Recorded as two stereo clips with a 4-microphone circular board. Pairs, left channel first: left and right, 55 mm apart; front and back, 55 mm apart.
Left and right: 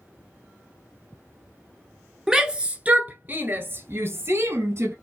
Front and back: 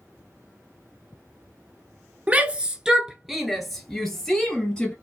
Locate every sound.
2.3 s a shout: 155° right, 1.2 m; by 4.9 s 70° right, 2.0 m